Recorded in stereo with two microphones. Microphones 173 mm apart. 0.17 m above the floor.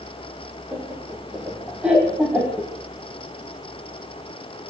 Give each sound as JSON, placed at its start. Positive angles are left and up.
{"t": 0.7, "sound": "laughter", "side_deg": -5, "distance_m": 8.0}